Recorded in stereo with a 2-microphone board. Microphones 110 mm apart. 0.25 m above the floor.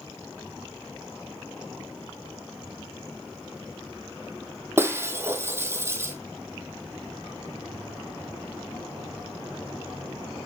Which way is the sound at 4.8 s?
25° right (ahead or behind).